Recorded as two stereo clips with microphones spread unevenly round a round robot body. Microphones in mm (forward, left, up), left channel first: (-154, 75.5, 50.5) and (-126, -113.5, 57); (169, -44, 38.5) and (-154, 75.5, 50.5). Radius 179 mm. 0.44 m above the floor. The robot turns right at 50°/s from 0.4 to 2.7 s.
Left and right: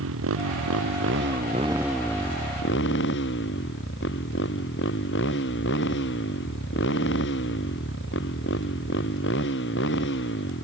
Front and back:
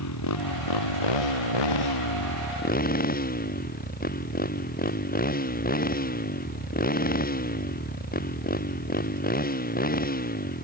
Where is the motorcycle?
70° right; by 10.6 s 45° left.